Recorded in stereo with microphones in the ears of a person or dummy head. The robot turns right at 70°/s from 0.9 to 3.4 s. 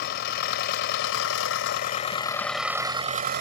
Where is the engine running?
55° left; by 3.4 s 130° right.